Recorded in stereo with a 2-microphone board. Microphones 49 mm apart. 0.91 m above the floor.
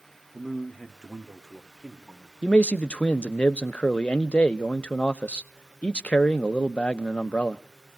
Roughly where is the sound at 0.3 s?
Centre.